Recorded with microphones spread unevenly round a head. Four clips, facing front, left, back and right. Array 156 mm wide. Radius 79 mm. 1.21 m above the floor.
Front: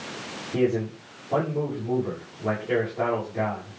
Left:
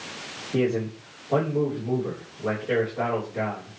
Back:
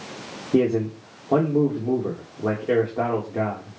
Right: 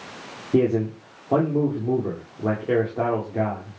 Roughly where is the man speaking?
Behind right.